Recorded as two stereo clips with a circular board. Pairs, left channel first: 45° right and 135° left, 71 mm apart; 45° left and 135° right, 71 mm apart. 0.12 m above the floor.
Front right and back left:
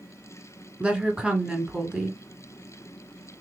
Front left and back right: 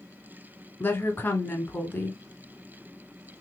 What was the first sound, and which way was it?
A woman speaking, 70° left.